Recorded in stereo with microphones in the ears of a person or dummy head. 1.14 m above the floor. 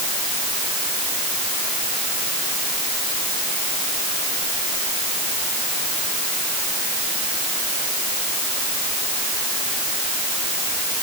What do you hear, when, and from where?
Only background noise.